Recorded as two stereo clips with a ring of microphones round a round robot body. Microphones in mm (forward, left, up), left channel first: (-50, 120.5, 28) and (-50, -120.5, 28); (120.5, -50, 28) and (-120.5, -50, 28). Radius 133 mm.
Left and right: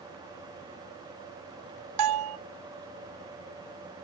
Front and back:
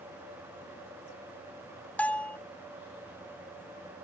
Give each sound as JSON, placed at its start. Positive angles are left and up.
{"t": 2.0, "sound": "a bell", "azimuth_deg": -85, "distance_m": 0.5}